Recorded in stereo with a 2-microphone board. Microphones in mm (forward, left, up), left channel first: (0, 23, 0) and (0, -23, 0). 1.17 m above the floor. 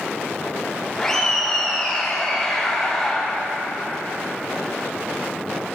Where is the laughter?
10° left (ahead or behind), 1.7 m.